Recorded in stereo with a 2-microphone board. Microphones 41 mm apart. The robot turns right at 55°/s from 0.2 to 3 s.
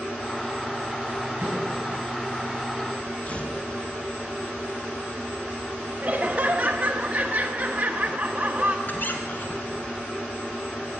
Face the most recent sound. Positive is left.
turn(degrees=45)  # may be behind; listen again after turning